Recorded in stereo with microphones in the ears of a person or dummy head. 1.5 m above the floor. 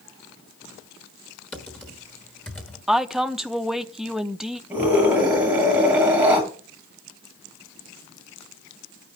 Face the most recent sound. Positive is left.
turn(degrees=-10)  # may be behind; listen again after turning